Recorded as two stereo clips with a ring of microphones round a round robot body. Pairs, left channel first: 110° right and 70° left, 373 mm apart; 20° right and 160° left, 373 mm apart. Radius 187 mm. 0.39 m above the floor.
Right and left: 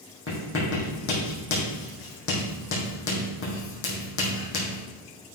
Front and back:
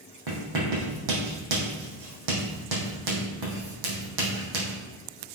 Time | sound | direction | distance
0.3 | writing | 170° right | 4 m